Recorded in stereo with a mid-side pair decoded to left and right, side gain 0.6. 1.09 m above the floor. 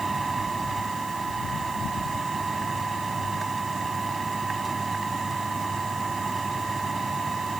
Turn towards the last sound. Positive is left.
turn(degrees=-20)